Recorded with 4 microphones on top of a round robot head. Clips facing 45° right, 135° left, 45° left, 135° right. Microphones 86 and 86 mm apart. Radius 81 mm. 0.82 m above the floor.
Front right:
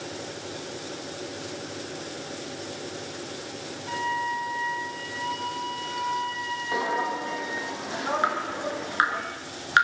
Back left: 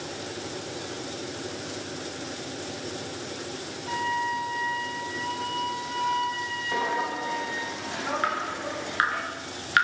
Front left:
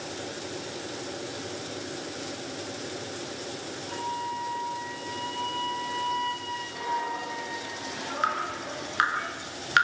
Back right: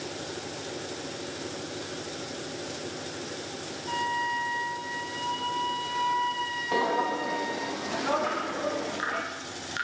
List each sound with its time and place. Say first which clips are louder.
3.9 s a flute: back left 1 dB, back right 4 dB; 140° right, 3.5 m
6.7 s footsteps: front right 1 dB, back right 5 dB; 125° right, 2.5 m; by 9.2 s 115° right, 4 m
8.2 s dripping: front right 2 dB, even; 20° left, 4.5 m